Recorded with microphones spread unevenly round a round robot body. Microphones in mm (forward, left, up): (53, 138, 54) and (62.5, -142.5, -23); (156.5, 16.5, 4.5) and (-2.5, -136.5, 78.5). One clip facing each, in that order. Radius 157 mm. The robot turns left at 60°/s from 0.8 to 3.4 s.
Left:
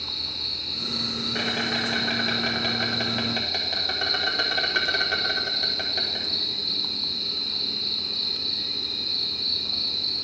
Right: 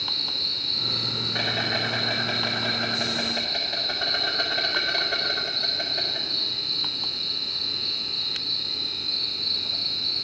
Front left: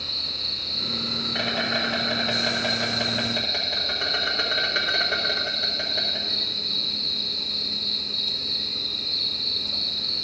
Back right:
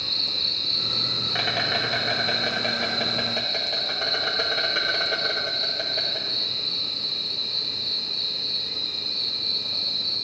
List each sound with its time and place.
0.0 s an insect: 125° right, 1.8 m; by 10.2 s 75° left, 1.8 m